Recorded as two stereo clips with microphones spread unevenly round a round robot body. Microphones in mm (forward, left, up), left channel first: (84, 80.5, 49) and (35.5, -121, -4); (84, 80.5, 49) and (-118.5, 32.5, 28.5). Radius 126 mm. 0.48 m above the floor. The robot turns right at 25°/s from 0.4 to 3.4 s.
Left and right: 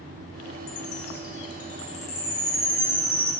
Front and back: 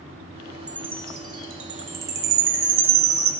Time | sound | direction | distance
0.7 | a chime | 110° left | 0.6 m